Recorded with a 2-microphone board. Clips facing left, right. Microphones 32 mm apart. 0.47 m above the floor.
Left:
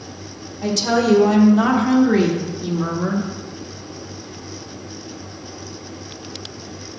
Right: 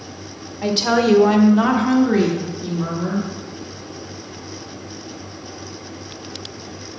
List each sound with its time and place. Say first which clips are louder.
0.6 s a woman speaking: right 1 dB; 35° right (ahead or behind), 1.3 m; by 3.3 s 30° left (ahead or behind), 1.4 m